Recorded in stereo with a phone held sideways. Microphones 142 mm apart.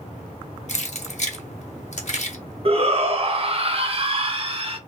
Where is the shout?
40° right (ahead or behind), 0.6 m.